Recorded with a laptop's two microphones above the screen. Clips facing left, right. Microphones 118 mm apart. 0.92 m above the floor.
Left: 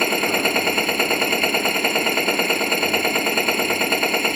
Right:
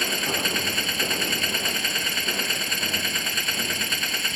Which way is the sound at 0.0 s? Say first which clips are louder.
Left 8 dB; 55° left (ahead or behind).